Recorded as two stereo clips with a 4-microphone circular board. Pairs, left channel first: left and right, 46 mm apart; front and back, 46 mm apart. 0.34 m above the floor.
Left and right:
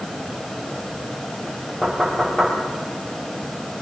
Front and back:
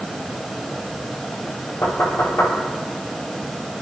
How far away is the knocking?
About 7 m.